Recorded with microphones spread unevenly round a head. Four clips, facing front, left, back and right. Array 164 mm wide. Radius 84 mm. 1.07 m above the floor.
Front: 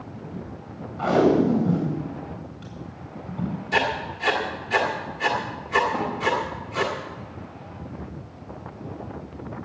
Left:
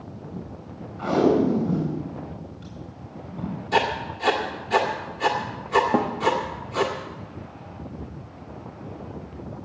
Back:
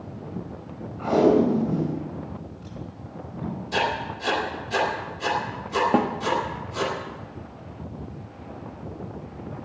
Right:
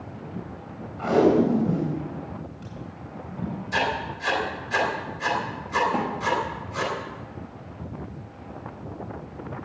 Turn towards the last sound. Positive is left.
turn(degrees=140)